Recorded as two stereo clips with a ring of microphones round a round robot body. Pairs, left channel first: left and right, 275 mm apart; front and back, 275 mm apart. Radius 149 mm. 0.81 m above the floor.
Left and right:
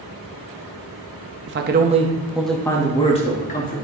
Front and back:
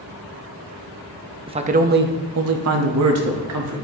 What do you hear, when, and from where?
1.5 s a man speaking: 115° right, 0.7 m; by 3.8 s 150° left, 1.4 m